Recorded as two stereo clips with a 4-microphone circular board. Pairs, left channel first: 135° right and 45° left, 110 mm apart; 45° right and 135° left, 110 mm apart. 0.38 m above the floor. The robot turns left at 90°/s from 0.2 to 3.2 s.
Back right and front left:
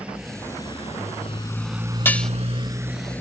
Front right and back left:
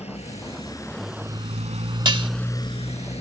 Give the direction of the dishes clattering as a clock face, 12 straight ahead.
7 o'clock.